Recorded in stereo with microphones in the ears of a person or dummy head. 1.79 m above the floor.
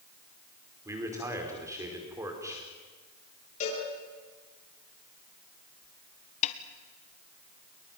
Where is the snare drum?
45° left (ahead or behind), 1.4 m.